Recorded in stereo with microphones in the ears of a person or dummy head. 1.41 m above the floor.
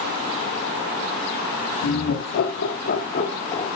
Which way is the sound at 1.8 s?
85° left.